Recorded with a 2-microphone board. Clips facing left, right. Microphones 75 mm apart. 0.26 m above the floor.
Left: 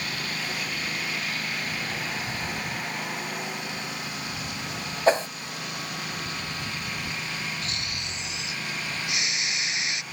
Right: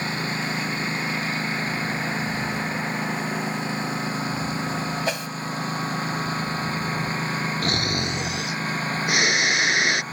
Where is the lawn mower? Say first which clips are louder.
Right 5 dB; 30° right (ahead or behind); by 10.1 s 35° right (ahead or behind).